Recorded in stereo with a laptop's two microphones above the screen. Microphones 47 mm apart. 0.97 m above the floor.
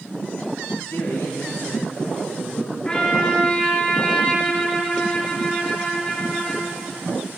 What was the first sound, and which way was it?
A man speaking, 65° left (ahead or behind).